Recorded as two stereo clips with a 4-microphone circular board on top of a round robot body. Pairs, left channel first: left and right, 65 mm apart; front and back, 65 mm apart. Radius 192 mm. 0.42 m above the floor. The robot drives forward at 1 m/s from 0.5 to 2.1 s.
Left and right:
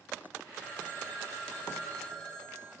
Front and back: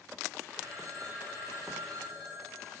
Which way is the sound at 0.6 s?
145° left.